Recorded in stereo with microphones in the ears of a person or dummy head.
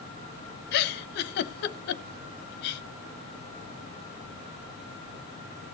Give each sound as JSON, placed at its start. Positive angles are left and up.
{"t": 0.7, "sound": "a giggle", "side_deg": 50, "distance_m": 0.7}